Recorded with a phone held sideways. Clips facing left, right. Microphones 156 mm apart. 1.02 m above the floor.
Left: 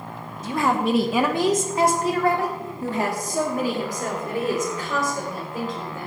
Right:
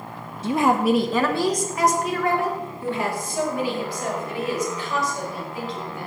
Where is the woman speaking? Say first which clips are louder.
Right 3 dB; 30° right (ahead or behind), 0.9 m; by 6.1 s 50° left (ahead or behind), 6 m.